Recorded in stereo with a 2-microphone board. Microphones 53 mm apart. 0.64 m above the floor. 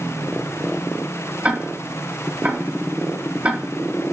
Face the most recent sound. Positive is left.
turn(degrees=-25)  # may be behind; listen again after turning